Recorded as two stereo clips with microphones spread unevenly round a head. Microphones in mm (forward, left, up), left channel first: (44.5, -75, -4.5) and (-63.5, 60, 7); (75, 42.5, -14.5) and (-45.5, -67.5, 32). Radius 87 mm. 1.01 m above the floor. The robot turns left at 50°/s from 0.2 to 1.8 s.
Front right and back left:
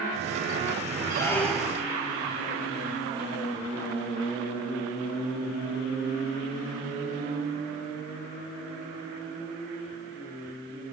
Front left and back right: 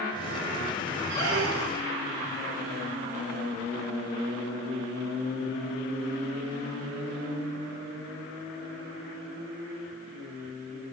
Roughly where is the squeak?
Behind right.